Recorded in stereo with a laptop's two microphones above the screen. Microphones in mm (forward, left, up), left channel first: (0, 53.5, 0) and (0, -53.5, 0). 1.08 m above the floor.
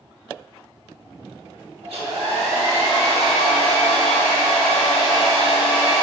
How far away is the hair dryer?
About 1.6 m.